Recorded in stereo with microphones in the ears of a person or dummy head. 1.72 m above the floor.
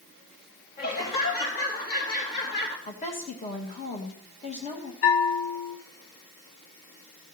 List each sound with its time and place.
0.8 s laughter: 40° left (ahead or behind), 3.5 m
2.9 s a woman speaking: 25° left (ahead or behind), 2.5 m
5.0 s a bell: 60° left (ahead or behind), 1.5 m